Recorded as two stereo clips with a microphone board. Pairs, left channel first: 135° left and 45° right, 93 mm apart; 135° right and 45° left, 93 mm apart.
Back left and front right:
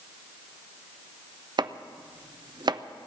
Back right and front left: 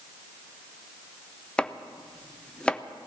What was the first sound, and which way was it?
Chopping, 60° right.